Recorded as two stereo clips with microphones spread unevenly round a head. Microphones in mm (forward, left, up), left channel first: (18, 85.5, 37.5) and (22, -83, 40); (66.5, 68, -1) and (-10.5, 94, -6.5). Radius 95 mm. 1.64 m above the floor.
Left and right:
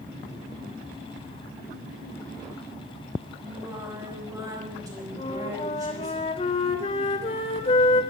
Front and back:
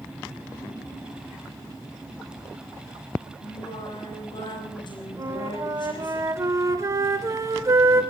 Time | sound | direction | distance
3.4 | singing | 20° right | 5.5 m
5.2 | a flute | 140° left | 1.6 m